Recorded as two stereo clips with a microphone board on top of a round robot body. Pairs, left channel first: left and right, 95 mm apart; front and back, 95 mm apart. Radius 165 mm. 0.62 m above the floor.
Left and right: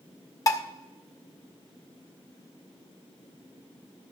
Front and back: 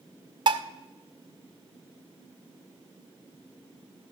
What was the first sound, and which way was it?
Dishes clattering, 145° left.